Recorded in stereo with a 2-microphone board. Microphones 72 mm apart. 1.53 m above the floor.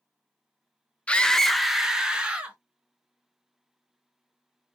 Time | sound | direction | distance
1.1 | a scream | 15° left (ahead or behind) | 0.6 m